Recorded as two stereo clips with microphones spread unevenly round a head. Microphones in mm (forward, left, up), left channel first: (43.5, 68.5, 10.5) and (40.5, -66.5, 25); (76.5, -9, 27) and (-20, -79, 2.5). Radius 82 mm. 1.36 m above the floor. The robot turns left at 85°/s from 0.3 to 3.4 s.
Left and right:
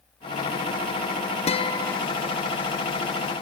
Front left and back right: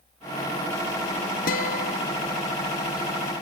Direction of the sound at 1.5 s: 55° left.